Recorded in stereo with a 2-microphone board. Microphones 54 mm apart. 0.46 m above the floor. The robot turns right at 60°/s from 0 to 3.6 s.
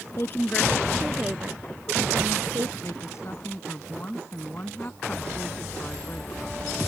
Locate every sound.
0.2 s a woman speaking: 130° left; by 2.7 s 75° right
2.8 s a woman speaking: 95° left; by 6.7 s 140° left